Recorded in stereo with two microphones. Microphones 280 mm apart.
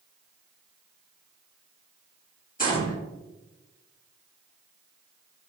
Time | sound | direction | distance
2.6 | a gunshot | 30° left (ahead or behind) | 1.7 m